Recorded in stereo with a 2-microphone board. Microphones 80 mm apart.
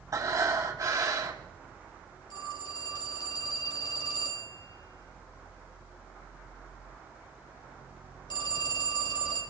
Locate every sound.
0.1 s breathing: 45° right (ahead or behind), 1.8 m
2.3 s a phone ringing: 70° left (ahead or behind), 6.5 m